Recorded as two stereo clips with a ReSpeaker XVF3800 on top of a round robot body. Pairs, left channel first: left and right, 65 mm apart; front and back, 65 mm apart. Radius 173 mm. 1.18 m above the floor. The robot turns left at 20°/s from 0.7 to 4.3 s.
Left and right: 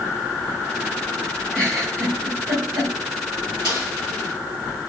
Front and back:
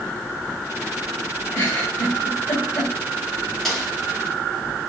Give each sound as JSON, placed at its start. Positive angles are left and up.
{"t": 1.5, "sound": "a giggle", "azimuth_deg": -50, "distance_m": 3.5}
{"t": 3.6, "sound": "a snare drum", "azimuth_deg": -85, "distance_m": 3.0}